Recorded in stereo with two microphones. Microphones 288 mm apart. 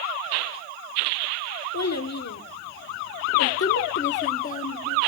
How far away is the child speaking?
About 1.3 m.